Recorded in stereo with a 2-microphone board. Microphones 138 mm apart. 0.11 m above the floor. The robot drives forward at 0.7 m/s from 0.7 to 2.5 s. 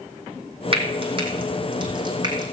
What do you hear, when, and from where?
0.7 s frying: 40° right (ahead or behind), 4 m; by 2.4 s 30° right (ahead or behind), 5 m